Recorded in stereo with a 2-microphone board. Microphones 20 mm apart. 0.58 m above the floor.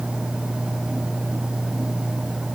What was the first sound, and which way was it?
Only background noise.